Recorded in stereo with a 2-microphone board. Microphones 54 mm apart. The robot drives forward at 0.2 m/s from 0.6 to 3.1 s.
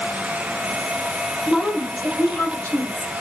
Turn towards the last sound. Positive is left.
turn(degrees=40)  # may be behind; listen again after turning